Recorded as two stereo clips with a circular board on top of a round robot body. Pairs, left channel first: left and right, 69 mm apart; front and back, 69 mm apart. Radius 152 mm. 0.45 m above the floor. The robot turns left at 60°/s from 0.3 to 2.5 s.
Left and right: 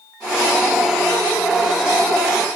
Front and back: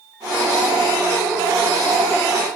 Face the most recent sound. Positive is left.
No sound to turn to.